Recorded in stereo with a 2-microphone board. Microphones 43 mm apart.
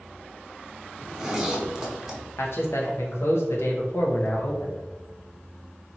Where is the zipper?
10° right (ahead or behind), 0.7 m.